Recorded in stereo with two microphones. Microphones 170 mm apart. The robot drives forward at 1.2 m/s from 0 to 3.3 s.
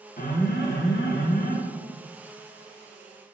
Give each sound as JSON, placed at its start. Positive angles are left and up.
{"t": 0.2, "sound": "an alarm", "side_deg": 55, "distance_m": 1.5}